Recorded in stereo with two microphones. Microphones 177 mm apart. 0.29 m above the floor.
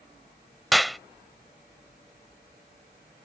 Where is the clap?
Centre (ahead or behind).